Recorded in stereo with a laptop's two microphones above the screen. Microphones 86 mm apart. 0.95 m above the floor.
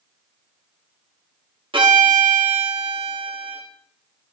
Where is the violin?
75° right (ahead or behind), 1.3 m.